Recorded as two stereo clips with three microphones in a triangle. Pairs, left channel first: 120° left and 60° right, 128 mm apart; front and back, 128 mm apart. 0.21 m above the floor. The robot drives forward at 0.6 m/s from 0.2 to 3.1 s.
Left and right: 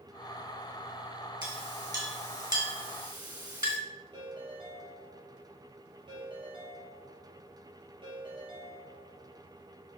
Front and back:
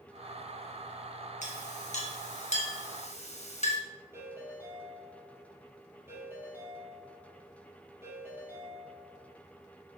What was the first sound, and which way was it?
A clink, 5° right.